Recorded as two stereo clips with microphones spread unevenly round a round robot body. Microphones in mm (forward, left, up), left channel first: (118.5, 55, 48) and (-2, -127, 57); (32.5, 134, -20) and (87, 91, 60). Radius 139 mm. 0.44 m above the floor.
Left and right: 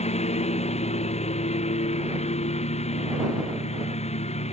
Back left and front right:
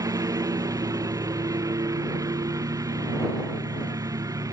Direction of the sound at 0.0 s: 5° right.